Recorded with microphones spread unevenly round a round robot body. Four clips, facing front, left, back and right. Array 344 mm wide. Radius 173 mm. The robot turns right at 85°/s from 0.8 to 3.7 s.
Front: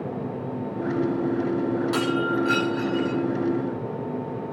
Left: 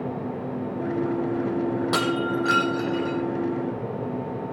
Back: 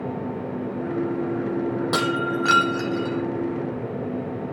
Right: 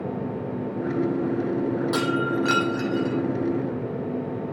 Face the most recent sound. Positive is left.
turn(degrees=-60)